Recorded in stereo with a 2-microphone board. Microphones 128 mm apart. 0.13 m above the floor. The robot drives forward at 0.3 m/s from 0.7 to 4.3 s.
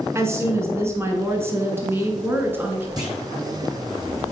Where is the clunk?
30° right (ahead or behind), 2 m.